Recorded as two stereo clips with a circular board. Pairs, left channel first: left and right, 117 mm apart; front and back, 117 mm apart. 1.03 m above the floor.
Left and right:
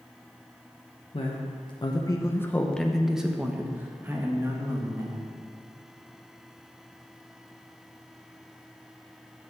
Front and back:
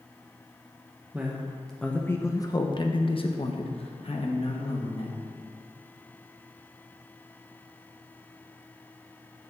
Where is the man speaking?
105° left, 1.0 m; by 5.2 s 30° right, 2 m.